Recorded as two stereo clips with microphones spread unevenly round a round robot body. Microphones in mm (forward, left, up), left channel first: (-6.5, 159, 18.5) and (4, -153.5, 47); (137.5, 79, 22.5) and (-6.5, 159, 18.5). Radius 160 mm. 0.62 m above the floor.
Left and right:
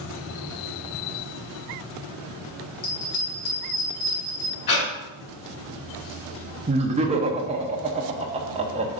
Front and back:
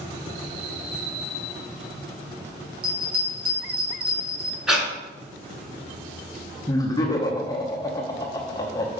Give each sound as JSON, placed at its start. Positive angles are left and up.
{"t": 2.8, "sound": "a bell", "azimuth_deg": 125, "distance_m": 3.5}
{"t": 4.7, "sound": "breathing", "azimuth_deg": 65, "distance_m": 2.5}
{"t": 6.7, "sound": "laughter", "azimuth_deg": -45, "distance_m": 0.7}